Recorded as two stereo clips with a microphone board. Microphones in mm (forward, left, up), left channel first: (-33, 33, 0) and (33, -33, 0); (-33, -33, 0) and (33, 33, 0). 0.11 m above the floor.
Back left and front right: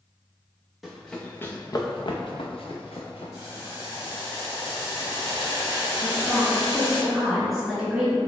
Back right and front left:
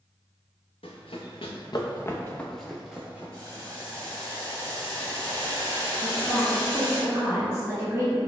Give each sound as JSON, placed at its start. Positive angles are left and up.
{"t": 0.8, "sound": "running footsteps", "azimuth_deg": -135, "distance_m": 0.9}
{"t": 3.3, "sound": "boiling", "azimuth_deg": 85, "distance_m": 1.9}
{"t": 6.0, "sound": "a woman speaking", "azimuth_deg": 40, "distance_m": 1.3}